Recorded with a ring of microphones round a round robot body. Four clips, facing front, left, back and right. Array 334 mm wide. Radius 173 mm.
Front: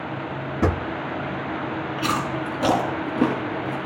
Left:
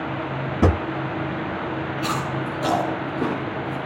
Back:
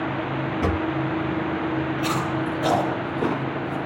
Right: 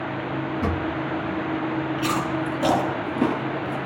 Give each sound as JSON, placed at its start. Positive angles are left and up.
{"t": 0.6, "sound": "a drawer", "azimuth_deg": 75, "distance_m": 0.6}
{"t": 2.0, "sound": "chewing", "azimuth_deg": -5, "distance_m": 3.0}